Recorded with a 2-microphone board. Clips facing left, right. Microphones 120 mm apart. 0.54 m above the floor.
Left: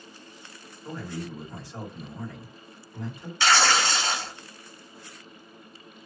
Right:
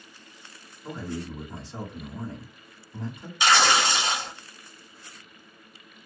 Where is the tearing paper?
15° right (ahead or behind), 0.9 m.